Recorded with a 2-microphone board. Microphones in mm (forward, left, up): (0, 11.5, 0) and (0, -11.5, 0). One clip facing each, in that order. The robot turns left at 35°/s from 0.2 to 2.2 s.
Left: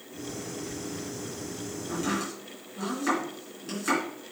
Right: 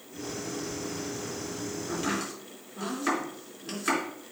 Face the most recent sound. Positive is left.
turn(degrees=-10)  # may be behind; listen again after turning